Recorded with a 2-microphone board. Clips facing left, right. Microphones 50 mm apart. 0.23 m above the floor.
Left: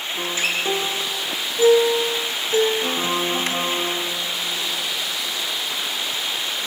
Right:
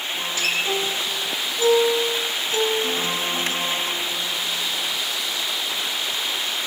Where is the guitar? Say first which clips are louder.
Left 1 dB; 30° left (ahead or behind), 2 m.